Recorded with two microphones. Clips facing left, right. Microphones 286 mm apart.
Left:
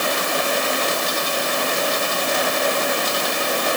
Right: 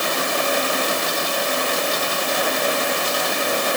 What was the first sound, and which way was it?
Only background noise.